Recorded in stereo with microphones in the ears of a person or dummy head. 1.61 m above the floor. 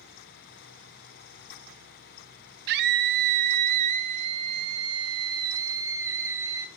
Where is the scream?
65° right (ahead or behind), 1.2 m; by 6.7 s 15° right (ahead or behind), 2.5 m.